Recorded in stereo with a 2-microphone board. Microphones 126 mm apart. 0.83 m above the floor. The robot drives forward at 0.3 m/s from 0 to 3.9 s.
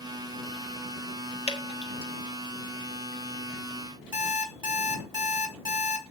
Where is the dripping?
50° left (ahead or behind), 1.3 m; by 2.1 s 45° left (ahead or behind), 1.4 m.